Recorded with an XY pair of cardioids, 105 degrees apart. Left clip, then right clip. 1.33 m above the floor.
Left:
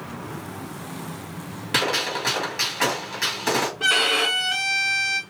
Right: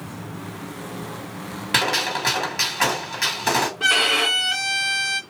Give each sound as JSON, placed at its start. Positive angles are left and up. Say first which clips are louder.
{"t": 1.7, "sound": "a gunshot", "louder": "right 2 dB", "azimuth_deg": -25, "distance_m": 1.8}
{"t": 3.8, "sound": "a violin", "louder": "right 1 dB", "azimuth_deg": -10, "distance_m": 1.6}